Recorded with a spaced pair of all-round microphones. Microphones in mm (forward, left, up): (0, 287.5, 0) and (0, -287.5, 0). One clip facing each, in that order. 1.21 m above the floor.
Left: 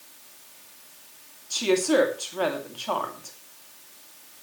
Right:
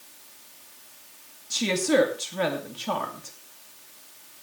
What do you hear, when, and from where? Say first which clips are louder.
1.5 s a woman speaking: left 2 dB; 40° right (ahead or behind), 2.5 m